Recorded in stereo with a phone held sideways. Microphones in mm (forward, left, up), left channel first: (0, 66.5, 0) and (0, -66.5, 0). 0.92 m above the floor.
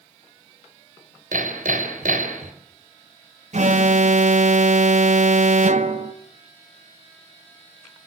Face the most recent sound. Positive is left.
turn(degrees=-60)  # may be behind; listen again after turning